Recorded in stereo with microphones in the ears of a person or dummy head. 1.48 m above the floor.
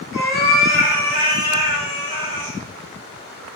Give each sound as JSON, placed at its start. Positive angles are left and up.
{"t": 0.1, "sound": "a cat meowing", "side_deg": 60, "distance_m": 1.7}